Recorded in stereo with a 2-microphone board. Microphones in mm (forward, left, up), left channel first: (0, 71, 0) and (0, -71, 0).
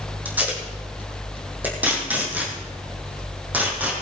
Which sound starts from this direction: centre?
Tape being pulled, at 0.2 s.